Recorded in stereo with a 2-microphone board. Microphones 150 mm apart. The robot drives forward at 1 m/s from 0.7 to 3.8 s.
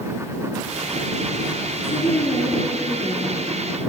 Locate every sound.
1.8 s a woman speaking: 50° left (ahead or behind), 2.5 m; by 3.8 s 30° left (ahead or behind), 3.5 m